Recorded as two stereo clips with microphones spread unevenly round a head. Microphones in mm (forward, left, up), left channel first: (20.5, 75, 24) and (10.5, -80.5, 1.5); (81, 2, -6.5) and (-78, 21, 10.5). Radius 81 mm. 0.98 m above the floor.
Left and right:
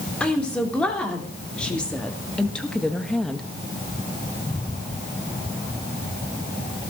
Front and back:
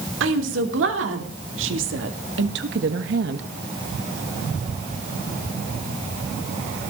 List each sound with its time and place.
0.2 s a woman speaking: 170° left, 3.5 m; by 3.5 s 175° left, 1.2 m